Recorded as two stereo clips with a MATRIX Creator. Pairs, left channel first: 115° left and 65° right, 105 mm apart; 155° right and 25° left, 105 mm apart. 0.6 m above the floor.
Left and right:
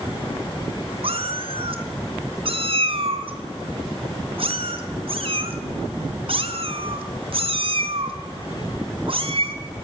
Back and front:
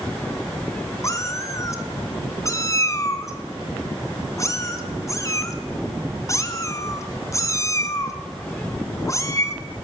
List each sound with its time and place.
1.0 s a cat meowing: 100° right, 2.5 m